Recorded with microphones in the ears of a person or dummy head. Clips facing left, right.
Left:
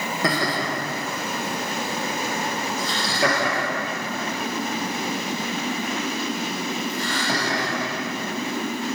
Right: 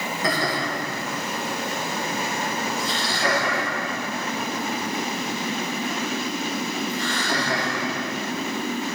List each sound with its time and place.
0.2 s laughter: 65° left (ahead or behind), 1.9 m; by 7.8 s 15° left (ahead or behind), 3.5 m